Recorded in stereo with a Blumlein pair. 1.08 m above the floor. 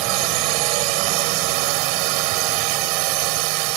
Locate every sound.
0.0 s a drone: 45° right